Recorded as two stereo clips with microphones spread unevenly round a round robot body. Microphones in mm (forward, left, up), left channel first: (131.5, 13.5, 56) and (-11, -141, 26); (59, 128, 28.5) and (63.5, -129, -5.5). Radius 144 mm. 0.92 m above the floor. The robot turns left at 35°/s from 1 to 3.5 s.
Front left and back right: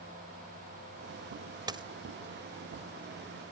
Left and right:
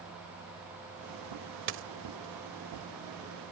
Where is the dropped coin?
60° right; by 1.8 s 65° right.